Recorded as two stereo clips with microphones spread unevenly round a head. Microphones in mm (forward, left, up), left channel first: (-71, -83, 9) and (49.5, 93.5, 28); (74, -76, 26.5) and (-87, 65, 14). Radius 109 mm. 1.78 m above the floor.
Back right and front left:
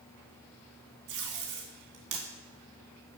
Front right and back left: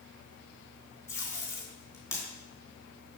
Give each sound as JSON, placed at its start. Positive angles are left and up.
{"t": 1.1, "sound": "tape being pulled", "azimuth_deg": 30, "distance_m": 3.0}